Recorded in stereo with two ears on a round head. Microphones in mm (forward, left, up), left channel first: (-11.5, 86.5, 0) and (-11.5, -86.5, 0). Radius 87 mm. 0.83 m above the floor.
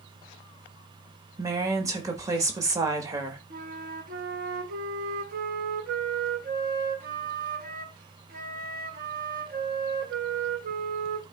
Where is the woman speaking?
15° right (ahead or behind), 1.3 m.